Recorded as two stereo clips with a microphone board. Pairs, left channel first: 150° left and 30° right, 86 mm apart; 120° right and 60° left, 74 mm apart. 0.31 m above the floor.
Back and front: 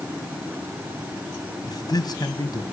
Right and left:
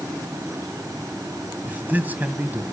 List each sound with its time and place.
1.7 s a man speaking: 125° left, 1.9 m